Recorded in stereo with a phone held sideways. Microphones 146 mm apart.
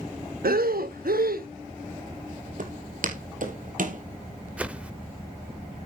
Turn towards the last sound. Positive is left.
turn(degrees=-10)  # may be behind; listen again after turning